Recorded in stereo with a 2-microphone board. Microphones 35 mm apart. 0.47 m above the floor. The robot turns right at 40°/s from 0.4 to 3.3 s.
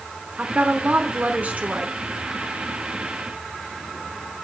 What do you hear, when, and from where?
0.4 s a woman speaking: 125° right, 1.0 m; by 2.0 s 65° right, 1.0 m